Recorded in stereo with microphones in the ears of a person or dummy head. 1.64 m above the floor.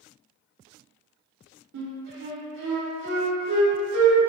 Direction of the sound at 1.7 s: 55° right (ahead or behind).